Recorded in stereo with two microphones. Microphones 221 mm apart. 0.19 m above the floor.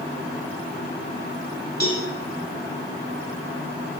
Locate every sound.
1.8 s a cowbell: 45° left (ahead or behind), 1.2 m